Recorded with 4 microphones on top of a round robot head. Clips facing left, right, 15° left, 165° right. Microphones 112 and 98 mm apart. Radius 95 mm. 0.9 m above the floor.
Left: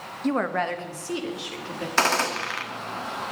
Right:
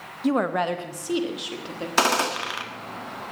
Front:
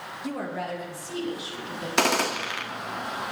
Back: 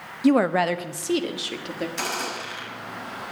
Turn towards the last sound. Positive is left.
turn(degrees=-15)